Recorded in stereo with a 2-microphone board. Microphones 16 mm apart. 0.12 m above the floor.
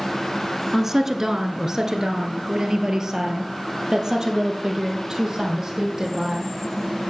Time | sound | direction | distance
0.7 | a woman speaking | 25° right (ahead or behind) | 1.5 m